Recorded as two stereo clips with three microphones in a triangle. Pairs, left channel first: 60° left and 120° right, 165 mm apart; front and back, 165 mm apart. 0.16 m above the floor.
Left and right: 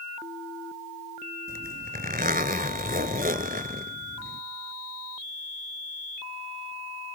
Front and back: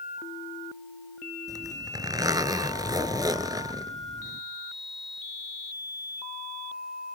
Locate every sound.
1.5 s a zipper: 115° right, 1.3 m